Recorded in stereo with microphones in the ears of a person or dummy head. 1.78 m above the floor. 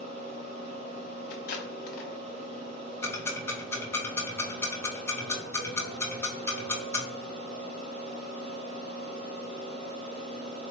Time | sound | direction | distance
0.0 | a fan | 35° right (ahead or behind) | 0.7 m
1.3 | tape being pulled | 50° left (ahead or behind) | 0.6 m
3.0 | ticking | 15° left (ahead or behind) | 0.6 m